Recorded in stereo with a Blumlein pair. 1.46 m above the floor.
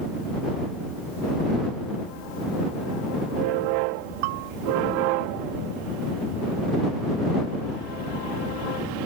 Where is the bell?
50° right.